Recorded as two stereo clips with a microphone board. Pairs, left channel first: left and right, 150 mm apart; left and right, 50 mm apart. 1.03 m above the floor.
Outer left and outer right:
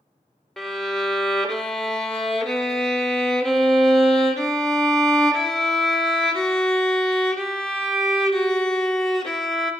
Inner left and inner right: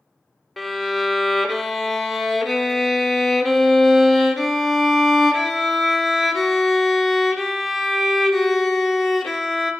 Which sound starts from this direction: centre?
A violin, at 0.6 s.